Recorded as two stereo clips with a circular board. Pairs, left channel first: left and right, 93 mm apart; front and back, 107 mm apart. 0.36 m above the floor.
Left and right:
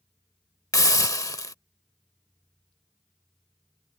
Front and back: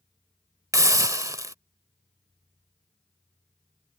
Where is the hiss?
130° left.